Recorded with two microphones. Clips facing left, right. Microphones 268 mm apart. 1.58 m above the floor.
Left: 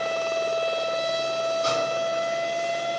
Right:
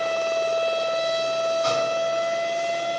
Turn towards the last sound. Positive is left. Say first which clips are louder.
# right 2 dB
turn(degrees=30)  # may be behind; listen again after turning